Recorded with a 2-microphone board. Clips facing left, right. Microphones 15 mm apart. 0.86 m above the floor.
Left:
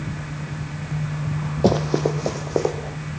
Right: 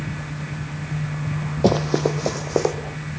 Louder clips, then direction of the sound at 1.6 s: Even; 15° right (ahead or behind).